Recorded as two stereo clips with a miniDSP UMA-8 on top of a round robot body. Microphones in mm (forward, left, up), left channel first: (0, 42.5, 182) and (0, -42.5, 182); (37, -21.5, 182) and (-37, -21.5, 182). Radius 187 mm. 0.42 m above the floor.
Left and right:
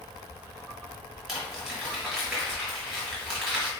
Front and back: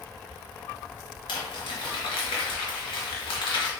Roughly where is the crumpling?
Ahead.